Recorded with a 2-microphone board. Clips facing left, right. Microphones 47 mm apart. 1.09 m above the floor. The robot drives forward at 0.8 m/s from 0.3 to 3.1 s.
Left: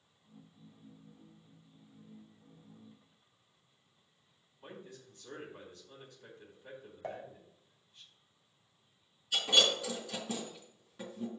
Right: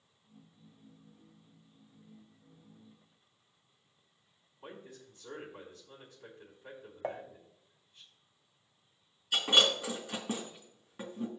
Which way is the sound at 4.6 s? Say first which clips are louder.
Right 1 dB; 15° right (ahead or behind).